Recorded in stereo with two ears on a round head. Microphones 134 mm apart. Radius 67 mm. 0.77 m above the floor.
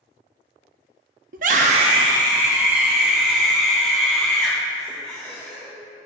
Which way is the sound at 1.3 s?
60° right (ahead or behind).